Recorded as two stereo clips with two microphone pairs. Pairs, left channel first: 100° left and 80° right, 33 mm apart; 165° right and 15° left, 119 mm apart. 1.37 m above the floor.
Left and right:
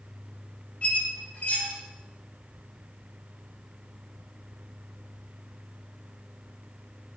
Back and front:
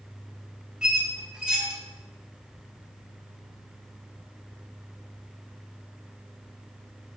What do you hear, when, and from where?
0.8 s a squeak: 95° left, 0.6 m